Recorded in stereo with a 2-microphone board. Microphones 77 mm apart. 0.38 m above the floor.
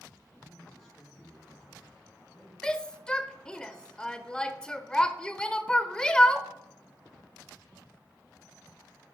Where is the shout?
10° left (ahead or behind), 1.0 m.